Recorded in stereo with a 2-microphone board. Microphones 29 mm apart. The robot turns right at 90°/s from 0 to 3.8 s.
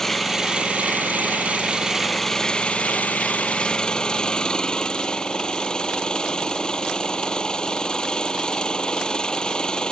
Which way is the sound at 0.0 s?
165° left.